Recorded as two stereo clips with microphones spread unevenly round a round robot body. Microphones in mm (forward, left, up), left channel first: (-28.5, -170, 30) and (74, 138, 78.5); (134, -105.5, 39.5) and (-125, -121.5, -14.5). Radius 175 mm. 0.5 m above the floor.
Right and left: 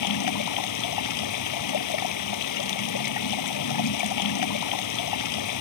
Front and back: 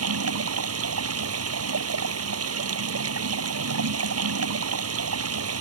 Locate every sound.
0.0 s running water: 145° right